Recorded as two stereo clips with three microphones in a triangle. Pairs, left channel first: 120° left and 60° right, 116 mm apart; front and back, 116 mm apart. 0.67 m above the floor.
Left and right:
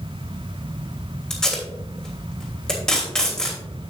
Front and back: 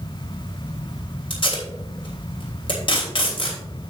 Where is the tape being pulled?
35° left, 3 m.